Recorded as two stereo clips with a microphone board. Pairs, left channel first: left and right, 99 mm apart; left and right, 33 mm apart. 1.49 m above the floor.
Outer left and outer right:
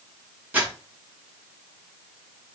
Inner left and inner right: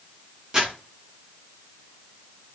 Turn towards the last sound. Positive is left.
turn(degrees=-15)  # may be behind; listen again after turning